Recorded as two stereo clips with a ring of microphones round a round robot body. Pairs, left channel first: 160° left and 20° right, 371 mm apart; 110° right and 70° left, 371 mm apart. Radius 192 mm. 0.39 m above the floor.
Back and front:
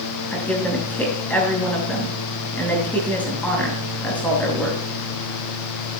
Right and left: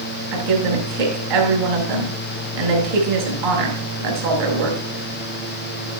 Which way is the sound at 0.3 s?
70° left.